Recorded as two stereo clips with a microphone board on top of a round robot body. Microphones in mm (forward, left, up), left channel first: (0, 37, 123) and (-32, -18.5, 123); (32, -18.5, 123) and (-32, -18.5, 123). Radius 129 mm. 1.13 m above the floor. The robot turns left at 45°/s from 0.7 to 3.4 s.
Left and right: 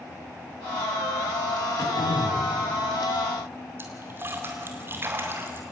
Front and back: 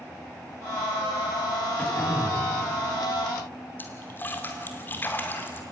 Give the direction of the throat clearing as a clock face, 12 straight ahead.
9 o'clock.